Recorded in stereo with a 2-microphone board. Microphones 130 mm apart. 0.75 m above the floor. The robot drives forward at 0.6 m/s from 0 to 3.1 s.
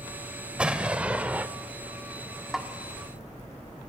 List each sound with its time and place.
0.6 s an explosion: 10° right (ahead or behind), 1.4 m; by 1.5 s 15° right (ahead or behind), 0.9 m
2.5 s a snare drum: 5° right (ahead or behind), 1.8 m